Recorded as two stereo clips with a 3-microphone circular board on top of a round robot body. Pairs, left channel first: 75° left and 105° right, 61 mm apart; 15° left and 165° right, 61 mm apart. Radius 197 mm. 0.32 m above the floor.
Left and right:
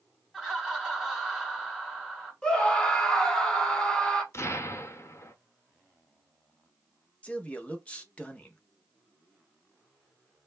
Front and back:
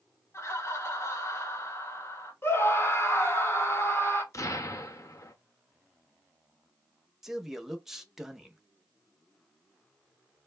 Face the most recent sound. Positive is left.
turn(degrees=120)